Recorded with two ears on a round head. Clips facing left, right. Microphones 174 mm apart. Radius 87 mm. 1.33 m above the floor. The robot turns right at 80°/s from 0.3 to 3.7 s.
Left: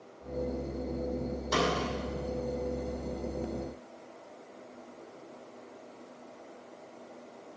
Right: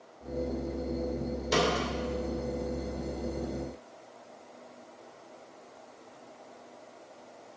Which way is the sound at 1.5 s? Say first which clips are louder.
Right 2 dB; 30° right (ahead or behind).